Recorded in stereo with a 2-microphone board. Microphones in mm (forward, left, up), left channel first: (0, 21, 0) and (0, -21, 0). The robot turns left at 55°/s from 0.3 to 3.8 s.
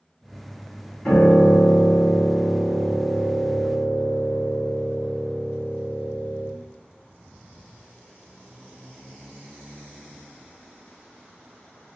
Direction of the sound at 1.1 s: 160° left.